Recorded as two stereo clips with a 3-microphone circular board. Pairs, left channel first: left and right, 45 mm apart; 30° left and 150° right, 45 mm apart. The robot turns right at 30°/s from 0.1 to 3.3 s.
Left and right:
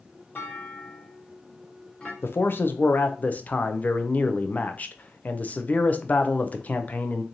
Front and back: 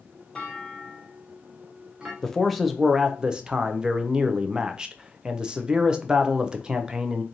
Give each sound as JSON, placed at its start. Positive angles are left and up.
{"t": 0.3, "sound": "a clunk", "azimuth_deg": 95, "distance_m": 1.3}
{"t": 2.2, "sound": "a man speaking", "azimuth_deg": 110, "distance_m": 0.6}